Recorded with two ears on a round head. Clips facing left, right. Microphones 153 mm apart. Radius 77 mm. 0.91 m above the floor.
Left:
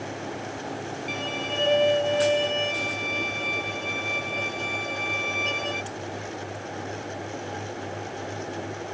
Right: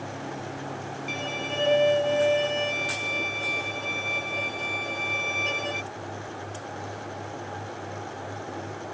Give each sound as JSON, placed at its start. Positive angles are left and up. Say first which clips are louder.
{"t": 1.1, "sound": "a violin", "louder": "even", "side_deg": -5}